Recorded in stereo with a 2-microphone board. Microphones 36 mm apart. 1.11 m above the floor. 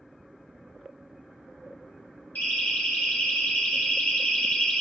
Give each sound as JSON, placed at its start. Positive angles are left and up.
{"t": 2.4, "sound": "a siren", "side_deg": 60, "distance_m": 5.5}